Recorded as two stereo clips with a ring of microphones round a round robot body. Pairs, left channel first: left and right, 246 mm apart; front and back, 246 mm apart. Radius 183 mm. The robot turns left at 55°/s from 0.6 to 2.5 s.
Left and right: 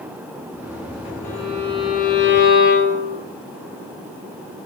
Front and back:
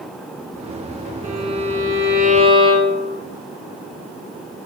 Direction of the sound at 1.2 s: 175° left.